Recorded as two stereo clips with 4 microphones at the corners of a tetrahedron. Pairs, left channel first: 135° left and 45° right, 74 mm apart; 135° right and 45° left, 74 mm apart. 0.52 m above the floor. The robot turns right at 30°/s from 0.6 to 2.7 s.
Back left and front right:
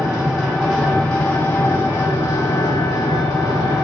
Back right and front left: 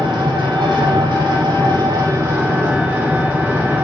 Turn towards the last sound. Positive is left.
turn(degrees=110)